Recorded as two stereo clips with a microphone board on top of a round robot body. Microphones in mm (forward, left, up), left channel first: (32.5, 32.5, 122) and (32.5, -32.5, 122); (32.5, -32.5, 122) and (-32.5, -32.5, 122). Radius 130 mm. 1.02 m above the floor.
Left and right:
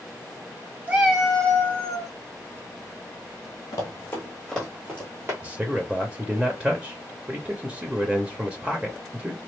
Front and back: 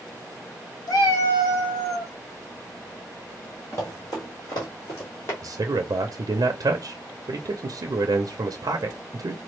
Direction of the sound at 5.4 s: 165° right.